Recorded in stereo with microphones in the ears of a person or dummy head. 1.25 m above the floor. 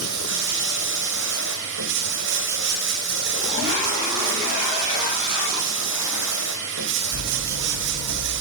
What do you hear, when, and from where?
0.0 s running water: 65° right (ahead or behind), 2.5 m